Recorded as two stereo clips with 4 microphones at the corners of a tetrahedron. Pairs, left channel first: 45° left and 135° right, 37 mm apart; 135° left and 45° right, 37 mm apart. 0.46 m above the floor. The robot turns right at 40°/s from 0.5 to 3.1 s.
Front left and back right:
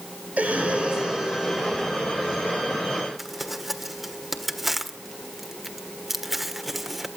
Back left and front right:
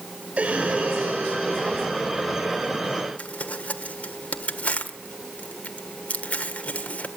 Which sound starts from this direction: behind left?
Crumpling, at 3.2 s.